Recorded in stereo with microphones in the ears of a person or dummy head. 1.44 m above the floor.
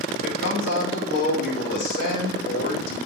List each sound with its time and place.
0.1 s a man speaking: 70° left (ahead or behind), 5.5 m